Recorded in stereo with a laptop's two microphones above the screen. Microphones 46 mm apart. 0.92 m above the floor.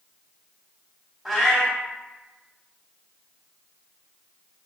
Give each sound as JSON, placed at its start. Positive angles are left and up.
{"t": 1.2, "sound": "a cat meowing", "side_deg": 0, "distance_m": 0.9}